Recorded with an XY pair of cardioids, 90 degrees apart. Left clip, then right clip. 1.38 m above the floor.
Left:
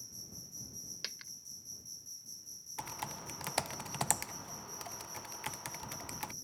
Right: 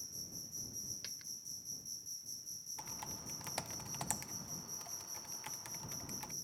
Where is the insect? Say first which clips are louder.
Right 1 dB; 10° right.